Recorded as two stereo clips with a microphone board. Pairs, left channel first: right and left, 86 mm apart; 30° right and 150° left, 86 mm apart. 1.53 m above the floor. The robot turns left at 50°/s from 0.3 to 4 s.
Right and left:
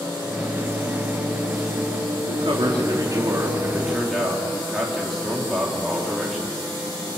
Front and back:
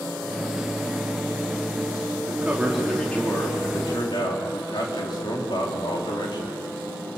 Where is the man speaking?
85° left, 4 m; by 6.5 s straight ahead, 4 m.